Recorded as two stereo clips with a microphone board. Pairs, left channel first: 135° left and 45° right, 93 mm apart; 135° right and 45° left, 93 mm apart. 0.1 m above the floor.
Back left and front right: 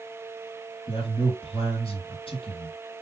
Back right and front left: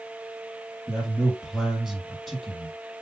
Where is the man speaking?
135° left, 3 m.